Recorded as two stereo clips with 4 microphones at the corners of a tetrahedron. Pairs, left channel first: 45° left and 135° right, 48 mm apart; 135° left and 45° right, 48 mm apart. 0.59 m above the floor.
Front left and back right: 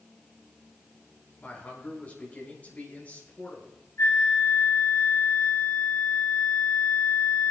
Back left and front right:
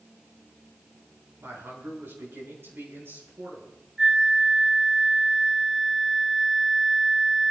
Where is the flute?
35° left, 1.4 m.